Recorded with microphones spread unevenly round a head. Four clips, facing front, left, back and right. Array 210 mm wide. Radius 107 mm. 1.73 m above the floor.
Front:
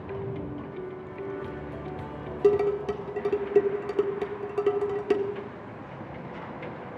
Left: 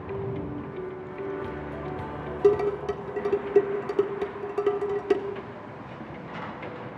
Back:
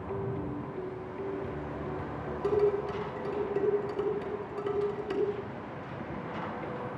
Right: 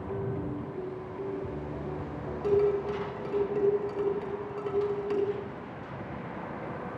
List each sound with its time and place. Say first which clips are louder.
2.4 s dishes clattering: left 3 dB, front 5 dB; 30° left, 1.9 m